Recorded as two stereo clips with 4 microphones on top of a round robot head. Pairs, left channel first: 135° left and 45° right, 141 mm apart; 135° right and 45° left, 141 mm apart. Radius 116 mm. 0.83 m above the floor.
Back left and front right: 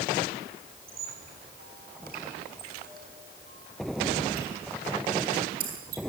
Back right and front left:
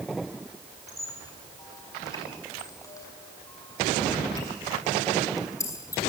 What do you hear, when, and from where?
0.9 s a squeak: 65° right, 6 m